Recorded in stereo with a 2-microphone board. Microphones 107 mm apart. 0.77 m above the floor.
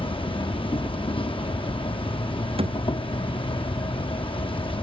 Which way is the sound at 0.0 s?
55° left (ahead or behind).